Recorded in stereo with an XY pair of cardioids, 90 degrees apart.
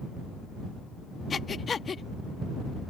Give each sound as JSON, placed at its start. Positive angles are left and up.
{"t": 1.3, "sound": "breathing", "azimuth_deg": 45}